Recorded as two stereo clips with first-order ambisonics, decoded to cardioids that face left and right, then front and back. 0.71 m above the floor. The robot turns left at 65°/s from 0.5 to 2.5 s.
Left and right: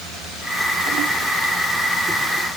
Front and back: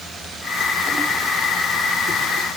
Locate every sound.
Only background noise.